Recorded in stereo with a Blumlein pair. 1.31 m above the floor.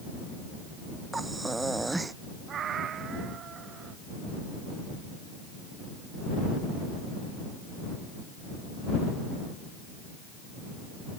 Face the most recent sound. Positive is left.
turn(degrees=-25)